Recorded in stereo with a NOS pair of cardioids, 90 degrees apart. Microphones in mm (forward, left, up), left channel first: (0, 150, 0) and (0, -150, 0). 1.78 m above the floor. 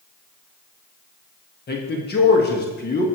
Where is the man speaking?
35° left, 1.5 m.